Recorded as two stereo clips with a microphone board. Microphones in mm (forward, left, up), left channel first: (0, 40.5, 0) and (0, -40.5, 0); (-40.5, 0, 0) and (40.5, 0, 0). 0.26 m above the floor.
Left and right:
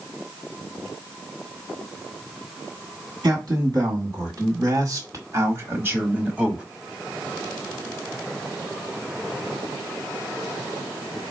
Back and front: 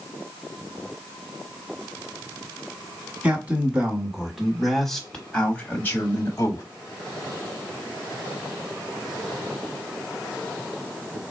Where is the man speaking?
70° right, 1.8 m; by 6.6 s 160° right, 1.2 m.